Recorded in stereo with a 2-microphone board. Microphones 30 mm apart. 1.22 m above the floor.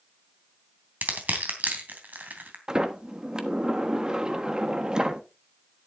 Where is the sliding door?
25° right (ahead or behind), 1.2 m.